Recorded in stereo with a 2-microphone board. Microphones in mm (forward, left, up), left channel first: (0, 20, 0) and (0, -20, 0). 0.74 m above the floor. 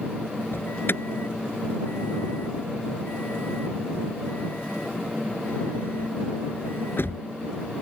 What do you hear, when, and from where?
0.5 s an alarm: 65° left (ahead or behind)